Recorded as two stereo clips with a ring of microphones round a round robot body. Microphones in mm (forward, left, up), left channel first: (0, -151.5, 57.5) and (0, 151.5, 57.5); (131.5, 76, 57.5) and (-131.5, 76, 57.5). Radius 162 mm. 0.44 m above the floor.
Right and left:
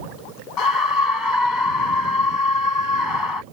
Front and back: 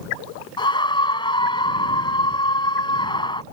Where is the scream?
75° right.